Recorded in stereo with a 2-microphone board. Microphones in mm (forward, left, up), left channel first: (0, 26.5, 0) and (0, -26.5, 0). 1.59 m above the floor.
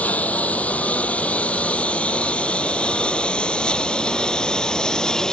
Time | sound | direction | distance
0.0 | a lawn mower | 30° left (ahead or behind) | ?